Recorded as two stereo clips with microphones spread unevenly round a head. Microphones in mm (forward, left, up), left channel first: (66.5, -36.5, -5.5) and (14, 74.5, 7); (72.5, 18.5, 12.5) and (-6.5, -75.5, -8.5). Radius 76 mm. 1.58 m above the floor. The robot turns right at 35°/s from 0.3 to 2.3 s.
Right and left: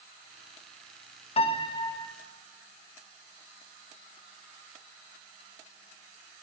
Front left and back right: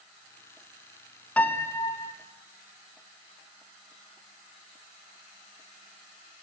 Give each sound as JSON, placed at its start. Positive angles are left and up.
{"t": 1.4, "sound": "a piano", "azimuth_deg": -25, "distance_m": 0.6}